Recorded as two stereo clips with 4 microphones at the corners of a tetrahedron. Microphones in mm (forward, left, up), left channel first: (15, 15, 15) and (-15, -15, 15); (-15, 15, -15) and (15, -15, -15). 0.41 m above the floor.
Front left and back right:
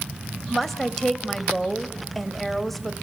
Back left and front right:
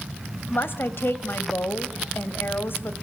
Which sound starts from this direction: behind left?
A woman speaking, at 0.5 s.